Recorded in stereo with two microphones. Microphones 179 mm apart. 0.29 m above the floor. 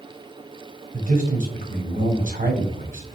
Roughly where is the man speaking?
Right.